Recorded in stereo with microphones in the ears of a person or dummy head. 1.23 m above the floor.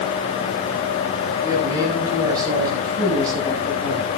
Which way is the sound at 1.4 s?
15° right (ahead or behind).